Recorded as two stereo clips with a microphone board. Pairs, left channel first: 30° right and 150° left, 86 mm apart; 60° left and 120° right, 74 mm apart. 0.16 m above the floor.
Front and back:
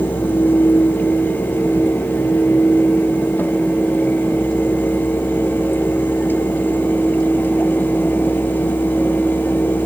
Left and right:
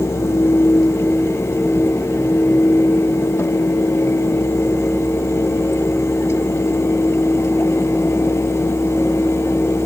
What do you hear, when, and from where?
Only background noise.